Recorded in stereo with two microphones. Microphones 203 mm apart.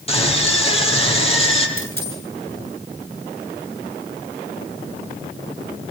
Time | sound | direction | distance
0.1 | a scream | 30° left (ahead or behind) | 9 m
1.8 | a dropped coin | 10° left (ahead or behind) | 9 m